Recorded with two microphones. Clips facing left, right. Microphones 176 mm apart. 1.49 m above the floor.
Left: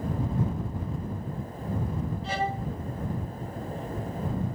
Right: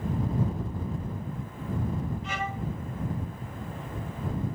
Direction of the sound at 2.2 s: 35° left (ahead or behind).